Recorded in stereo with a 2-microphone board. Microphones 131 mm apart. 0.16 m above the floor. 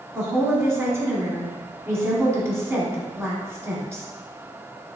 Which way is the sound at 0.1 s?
20° right (ahead or behind).